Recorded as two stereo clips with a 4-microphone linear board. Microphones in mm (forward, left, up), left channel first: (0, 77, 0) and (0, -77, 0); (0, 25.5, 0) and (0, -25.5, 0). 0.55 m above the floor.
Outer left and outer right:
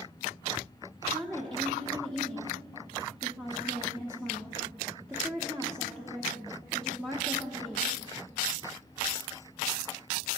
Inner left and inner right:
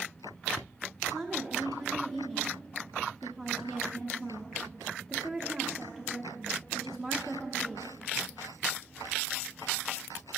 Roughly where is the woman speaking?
Centre.